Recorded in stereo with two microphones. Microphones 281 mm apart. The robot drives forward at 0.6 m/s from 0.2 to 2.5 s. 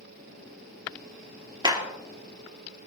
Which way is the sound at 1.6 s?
15° right (ahead or behind).